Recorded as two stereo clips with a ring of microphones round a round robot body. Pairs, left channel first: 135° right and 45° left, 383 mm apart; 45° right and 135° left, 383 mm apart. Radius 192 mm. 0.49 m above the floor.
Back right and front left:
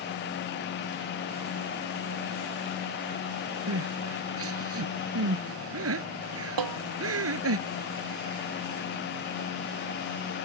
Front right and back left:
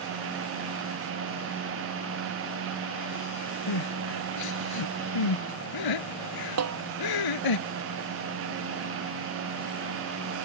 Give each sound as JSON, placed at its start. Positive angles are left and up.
{"t": 3.7, "sound": "crying", "azimuth_deg": -10}
{"t": 6.6, "sound": "a snare drum", "azimuth_deg": 85}